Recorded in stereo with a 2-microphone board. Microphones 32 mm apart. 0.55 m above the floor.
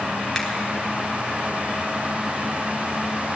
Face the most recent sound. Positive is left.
turn(degrees=5)  # may be behind; listen again after turning